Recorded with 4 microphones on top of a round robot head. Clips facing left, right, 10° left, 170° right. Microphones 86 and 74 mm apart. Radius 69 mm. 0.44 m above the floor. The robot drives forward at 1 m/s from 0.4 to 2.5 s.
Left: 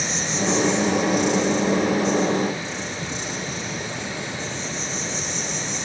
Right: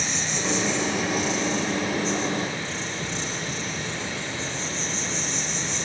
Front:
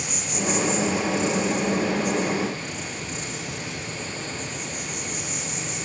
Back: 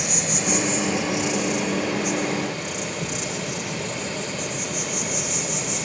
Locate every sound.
0.0 s an insect: 160° left, 4 m; by 5.9 s 165° left, 6 m